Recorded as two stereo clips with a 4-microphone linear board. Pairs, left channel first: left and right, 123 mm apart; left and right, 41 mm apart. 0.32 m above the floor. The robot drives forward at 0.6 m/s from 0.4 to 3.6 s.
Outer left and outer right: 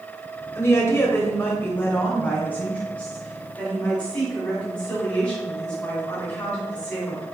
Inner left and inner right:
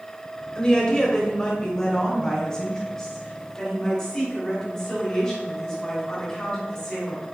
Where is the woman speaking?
20° left (ahead or behind), 1.0 m; by 7.2 s 10° left (ahead or behind), 2 m.